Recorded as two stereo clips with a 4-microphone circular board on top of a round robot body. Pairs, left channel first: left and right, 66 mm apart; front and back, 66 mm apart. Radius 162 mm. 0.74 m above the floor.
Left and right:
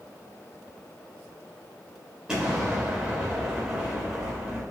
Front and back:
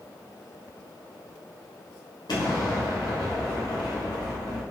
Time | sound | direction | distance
2.3 | an explosion | 10° right | 1.0 m